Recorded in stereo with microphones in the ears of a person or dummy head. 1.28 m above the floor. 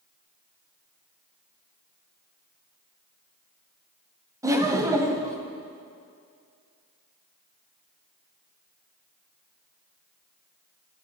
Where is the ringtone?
No ringtone in this recording.